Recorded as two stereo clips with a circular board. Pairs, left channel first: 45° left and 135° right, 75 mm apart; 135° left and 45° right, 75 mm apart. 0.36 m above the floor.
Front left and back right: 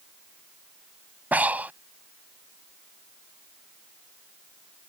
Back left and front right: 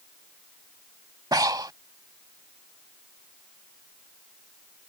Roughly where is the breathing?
Ahead right.